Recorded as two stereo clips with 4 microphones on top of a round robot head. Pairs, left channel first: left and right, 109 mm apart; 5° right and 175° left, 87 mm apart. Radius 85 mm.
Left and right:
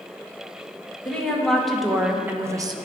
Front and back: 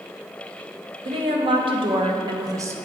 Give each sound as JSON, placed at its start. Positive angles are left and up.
{"t": 1.1, "sound": "a woman speaking", "azimuth_deg": 170, "distance_m": 1.3}